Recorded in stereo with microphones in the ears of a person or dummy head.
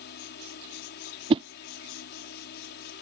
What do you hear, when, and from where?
0.0 s a fan: 60° left (ahead or behind)
1.3 s a whoosh: 30° right (ahead or behind)